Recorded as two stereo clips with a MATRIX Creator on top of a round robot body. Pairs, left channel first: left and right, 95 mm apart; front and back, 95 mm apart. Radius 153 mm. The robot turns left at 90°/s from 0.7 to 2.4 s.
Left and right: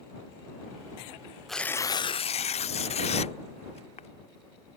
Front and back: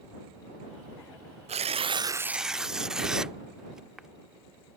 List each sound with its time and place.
1.5 s tearing paper: straight behind; by 4.1 s 95° left